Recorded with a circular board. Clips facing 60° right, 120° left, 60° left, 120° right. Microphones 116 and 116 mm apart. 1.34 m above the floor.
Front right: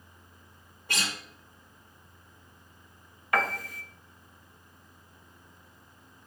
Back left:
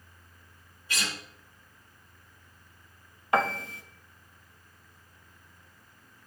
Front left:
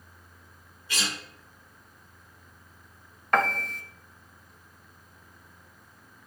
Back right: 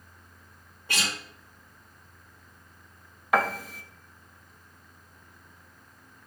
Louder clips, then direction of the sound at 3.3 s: Back left 3 dB, even; 160° left.